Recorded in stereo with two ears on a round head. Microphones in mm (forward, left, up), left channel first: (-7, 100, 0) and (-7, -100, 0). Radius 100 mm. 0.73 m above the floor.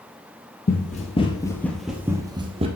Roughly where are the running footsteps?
Left.